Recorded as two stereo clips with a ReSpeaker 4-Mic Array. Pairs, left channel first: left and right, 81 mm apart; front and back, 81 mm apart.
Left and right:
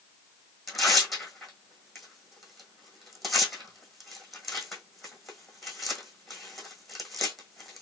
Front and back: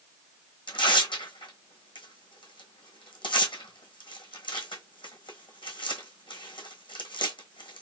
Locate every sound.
0.7 s tearing paper: 5° left, 1.5 m